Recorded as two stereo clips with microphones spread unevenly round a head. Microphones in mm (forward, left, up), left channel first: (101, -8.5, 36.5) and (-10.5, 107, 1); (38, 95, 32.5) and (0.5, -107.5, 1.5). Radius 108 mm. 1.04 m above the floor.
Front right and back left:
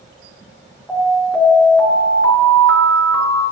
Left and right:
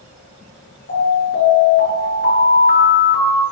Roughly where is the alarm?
Ahead left.